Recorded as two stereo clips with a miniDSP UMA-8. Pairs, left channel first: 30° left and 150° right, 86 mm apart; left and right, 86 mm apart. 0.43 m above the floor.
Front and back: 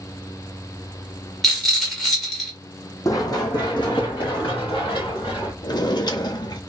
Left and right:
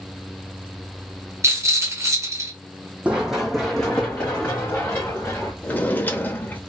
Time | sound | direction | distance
1.4 | a rattle | 55° right | 1.1 m
3.0 | running footsteps | 15° right | 1.0 m
5.6 | a drawer | 25° left | 0.6 m